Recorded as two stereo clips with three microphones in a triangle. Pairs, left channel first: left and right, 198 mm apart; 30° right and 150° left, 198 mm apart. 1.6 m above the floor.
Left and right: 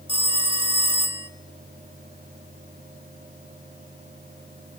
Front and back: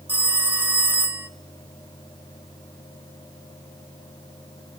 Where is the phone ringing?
135° right, 0.8 m.